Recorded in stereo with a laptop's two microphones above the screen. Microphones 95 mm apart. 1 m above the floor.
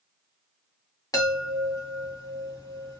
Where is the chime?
35° left (ahead or behind), 1.2 m.